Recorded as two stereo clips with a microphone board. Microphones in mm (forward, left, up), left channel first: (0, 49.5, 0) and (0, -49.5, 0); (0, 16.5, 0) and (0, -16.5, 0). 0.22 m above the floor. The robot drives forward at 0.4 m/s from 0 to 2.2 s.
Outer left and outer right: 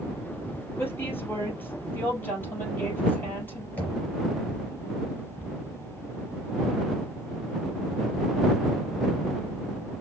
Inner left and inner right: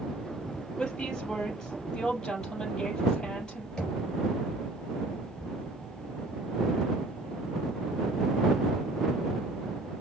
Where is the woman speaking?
20° left (ahead or behind), 4 m.